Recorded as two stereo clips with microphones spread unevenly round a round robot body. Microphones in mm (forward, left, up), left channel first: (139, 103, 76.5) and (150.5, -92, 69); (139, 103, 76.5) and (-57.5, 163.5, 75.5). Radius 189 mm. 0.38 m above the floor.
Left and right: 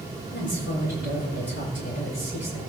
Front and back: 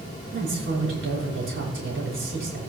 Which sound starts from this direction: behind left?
A woman speaking, at 0.3 s.